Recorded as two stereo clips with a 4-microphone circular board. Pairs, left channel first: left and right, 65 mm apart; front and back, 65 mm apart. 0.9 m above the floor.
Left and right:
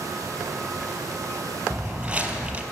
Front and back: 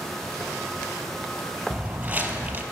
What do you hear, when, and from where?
1.7 s footsteps: 140° right, 1.0 m